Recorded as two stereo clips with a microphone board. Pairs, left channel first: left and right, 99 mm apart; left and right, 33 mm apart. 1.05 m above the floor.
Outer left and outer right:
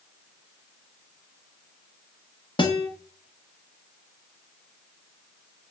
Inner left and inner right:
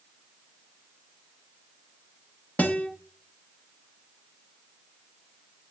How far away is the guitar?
About 1.0 m.